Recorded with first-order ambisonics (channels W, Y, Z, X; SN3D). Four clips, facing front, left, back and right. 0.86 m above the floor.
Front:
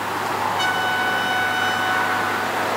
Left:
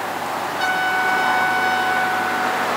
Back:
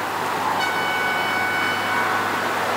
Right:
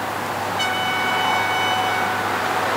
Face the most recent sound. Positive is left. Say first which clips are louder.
# left 3 dB, front 1 dB
turn(degrees=-45)